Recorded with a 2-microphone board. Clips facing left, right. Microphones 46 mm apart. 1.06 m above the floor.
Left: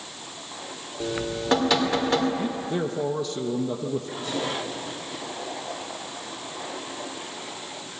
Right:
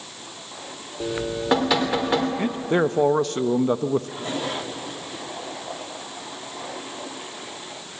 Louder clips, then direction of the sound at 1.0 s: Right 2 dB; 15° right (ahead or behind).